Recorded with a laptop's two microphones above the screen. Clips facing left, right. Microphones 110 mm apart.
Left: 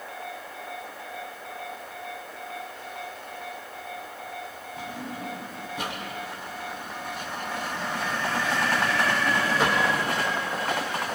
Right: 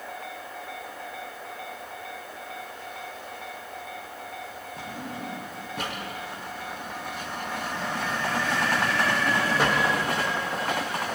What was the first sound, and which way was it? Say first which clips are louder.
A drawer: left 1 dB; 60° right (ahead or behind).